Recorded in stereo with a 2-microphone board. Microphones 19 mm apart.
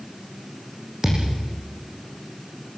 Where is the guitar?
I don't hear a guitar.